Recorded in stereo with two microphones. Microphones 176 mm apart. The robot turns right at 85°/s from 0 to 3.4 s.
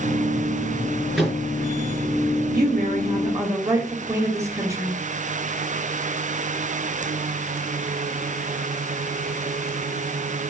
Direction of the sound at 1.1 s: 5° right (ahead or behind).